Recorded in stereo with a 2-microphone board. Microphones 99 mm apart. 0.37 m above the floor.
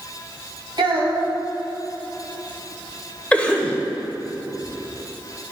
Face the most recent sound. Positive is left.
turn(degrees=15)  # may be behind; listen again after turning